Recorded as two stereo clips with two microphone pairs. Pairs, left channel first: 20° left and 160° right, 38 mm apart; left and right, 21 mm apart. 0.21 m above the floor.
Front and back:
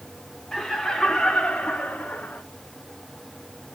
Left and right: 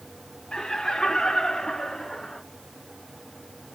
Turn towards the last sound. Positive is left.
turn(degrees=40)